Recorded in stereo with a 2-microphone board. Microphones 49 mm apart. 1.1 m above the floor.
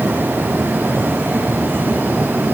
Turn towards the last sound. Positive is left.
No sound to turn to.